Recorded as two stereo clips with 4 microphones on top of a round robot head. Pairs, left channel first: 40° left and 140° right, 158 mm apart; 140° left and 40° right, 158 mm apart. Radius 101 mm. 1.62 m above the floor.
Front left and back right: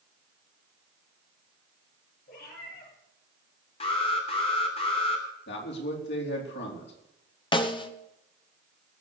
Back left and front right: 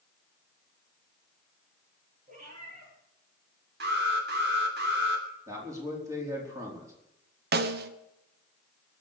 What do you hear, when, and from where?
2.3 s a cat meowing: 5° left, 7.5 m
3.8 s an alarm: 15° right, 3 m
5.5 s a man speaking: 30° left, 4.5 m
7.5 s a snare drum: 20° right, 1.1 m